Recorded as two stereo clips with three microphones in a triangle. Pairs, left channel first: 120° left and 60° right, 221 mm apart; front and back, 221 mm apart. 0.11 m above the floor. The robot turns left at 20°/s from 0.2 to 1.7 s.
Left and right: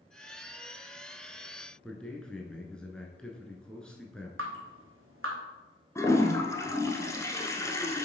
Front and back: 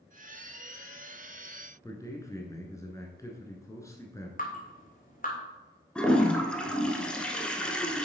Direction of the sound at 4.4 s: 50° right.